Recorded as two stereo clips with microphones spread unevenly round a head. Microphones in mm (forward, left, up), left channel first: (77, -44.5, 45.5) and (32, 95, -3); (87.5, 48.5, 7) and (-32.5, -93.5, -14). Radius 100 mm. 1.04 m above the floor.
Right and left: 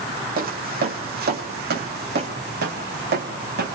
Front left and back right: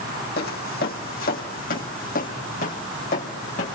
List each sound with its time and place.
0.4 s footsteps: 80° left, 2.5 m; by 3.8 s 100° left, 4 m